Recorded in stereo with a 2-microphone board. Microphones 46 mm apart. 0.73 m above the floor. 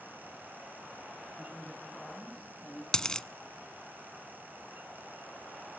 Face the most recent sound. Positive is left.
turn(degrees=15)  # may be behind; listen again after turning